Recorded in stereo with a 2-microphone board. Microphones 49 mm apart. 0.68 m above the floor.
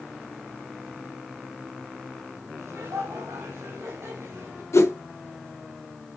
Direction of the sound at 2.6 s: 75° right (ahead or behind).